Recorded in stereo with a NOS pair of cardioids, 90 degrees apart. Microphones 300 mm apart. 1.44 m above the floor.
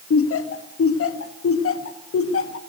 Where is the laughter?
50° left, 1.8 m.